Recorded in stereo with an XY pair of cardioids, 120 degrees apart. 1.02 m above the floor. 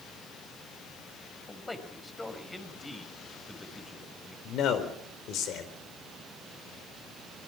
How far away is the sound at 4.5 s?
About 4 m.